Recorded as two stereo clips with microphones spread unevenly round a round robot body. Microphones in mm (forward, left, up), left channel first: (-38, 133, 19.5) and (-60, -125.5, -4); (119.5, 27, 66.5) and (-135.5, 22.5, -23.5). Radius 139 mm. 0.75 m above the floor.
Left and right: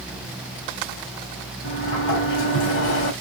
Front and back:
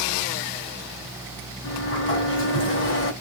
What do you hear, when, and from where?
1.6 s a sliding door: 45° left, 2.5 m